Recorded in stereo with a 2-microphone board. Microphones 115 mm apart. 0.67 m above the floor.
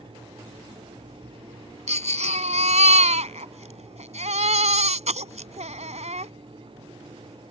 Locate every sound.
1.9 s a baby crying: 75° right (ahead or behind)